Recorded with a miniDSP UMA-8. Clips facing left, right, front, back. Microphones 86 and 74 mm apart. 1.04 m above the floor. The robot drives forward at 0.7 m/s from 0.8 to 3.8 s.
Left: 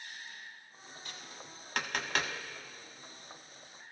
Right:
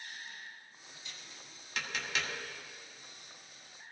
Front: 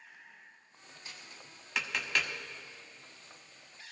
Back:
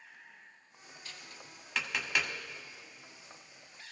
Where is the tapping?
65° left, 1.5 m; by 2.3 s 105° left, 1.4 m.